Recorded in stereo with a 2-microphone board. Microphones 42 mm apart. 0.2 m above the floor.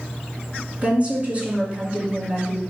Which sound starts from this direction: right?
A woman speaking, at 0.8 s.